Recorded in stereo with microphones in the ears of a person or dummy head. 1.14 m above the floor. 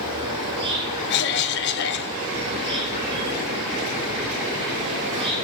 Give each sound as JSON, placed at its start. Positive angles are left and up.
{"t": 0.0, "sound": "an insect", "side_deg": -20, "distance_m": 1.6}
{"t": 1.1, "sound": "a cough", "side_deg": 55, "distance_m": 0.8}